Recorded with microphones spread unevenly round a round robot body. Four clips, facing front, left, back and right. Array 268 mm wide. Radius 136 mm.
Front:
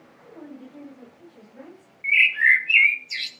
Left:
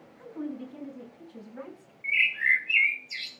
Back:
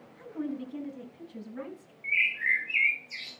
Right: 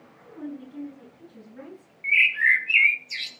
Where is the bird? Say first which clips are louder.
Right 5 dB, front 10 dB; 30° right, 3 m.